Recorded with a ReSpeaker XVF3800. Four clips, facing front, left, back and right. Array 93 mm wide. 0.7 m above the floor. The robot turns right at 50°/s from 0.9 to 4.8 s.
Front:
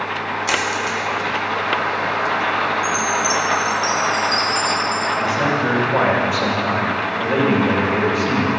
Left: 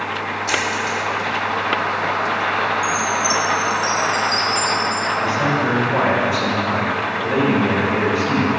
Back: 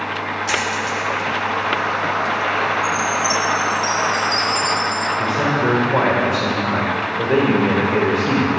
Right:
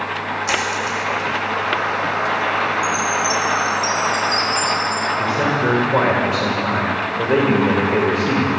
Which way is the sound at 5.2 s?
130° right.